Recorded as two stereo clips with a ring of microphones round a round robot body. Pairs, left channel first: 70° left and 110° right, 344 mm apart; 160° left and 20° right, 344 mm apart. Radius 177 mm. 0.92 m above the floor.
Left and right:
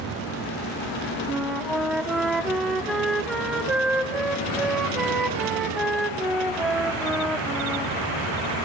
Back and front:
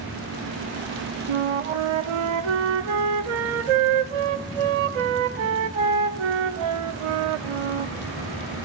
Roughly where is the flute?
Ahead right.